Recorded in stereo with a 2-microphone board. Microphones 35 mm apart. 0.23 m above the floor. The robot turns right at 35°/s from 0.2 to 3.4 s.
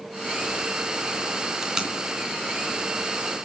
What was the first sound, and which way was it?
Tape being pulled, 15° right (ahead or behind).